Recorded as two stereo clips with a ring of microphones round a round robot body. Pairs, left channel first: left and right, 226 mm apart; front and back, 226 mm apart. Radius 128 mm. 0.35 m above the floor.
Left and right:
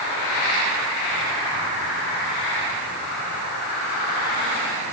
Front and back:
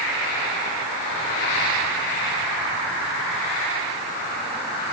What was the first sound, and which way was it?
Only background noise.